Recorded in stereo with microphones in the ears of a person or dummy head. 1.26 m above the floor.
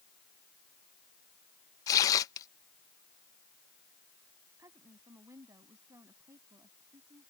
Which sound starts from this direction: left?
Tearing paper, at 1.9 s.